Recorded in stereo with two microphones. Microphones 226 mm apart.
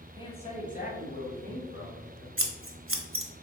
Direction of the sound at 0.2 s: 20° left (ahead or behind).